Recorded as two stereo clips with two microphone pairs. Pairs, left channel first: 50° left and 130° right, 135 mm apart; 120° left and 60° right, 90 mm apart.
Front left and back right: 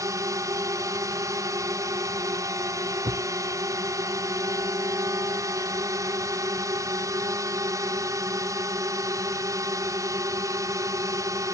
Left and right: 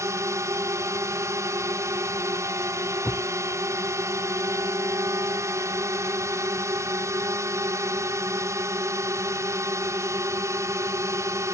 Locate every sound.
0.0 s a drone: 85° right
3.0 s a thud: 155° right